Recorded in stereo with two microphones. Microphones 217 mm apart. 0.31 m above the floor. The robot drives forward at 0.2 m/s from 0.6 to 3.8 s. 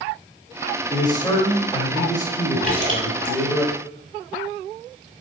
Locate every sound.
0.9 s a man speaking: 20° left (ahead or behind), 1.2 m
2.6 s a splash: 40° left (ahead or behind), 1.8 m; by 3.4 s 35° left (ahead or behind), 1.9 m